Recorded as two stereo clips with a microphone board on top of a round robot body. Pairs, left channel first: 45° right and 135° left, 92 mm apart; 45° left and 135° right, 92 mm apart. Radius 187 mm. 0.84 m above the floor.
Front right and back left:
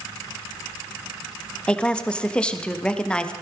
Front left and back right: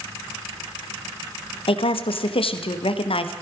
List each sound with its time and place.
1.7 s a woman speaking: 35° left, 1.2 m